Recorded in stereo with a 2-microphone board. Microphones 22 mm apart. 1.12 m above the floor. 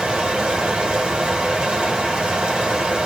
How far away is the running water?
About 2.5 m.